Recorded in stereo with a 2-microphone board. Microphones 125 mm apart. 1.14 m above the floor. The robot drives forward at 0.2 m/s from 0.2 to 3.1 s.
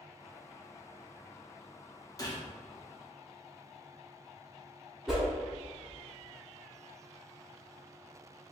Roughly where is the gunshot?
Left.